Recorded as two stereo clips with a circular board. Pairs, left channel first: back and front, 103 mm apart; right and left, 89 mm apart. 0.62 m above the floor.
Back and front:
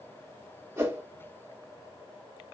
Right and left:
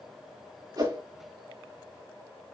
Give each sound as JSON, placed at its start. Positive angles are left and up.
{"t": 0.8, "sound": "a whoosh", "azimuth_deg": 60, "distance_m": 1.4}